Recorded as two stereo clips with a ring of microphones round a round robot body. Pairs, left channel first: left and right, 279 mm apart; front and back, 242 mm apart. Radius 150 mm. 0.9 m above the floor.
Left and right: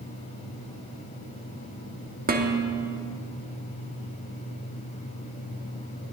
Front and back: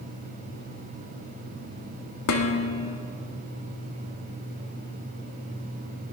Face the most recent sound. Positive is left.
turn(degrees=-30)